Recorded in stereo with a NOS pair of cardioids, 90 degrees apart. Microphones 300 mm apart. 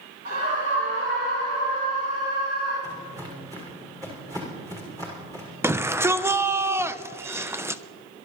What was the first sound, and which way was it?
A scream, 30° right.